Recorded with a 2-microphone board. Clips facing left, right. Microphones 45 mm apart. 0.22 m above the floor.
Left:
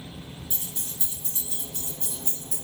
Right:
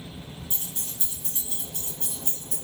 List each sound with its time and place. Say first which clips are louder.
0.5 s keys jangling: even; 55° right (ahead or behind), 1.7 m; by 2.5 s 70° right (ahead or behind), 2.5 m